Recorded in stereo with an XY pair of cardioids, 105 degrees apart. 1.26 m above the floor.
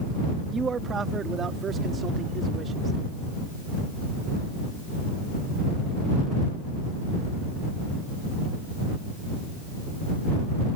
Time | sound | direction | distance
0.5 | a man speaking | 40° right | ?